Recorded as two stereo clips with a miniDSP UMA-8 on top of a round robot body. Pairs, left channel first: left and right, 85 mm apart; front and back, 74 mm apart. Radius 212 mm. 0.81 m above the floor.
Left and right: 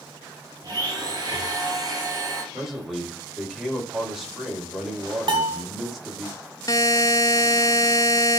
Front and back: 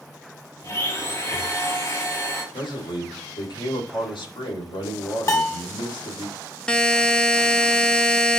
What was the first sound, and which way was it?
A blender, 50° right.